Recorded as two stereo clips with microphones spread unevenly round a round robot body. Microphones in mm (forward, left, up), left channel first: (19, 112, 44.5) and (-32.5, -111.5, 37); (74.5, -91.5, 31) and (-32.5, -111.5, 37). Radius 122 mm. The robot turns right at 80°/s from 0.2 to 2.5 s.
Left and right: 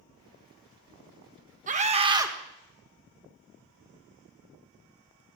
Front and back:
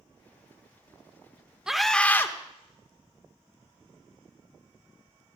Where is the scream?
85° right, 1.4 m; by 2.3 s 30° right, 1.4 m.